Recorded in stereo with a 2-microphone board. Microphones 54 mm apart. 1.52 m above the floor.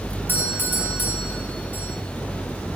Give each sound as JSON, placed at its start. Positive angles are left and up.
{"t": 0.3, "sound": "a doorbell", "side_deg": 40, "distance_m": 2.0}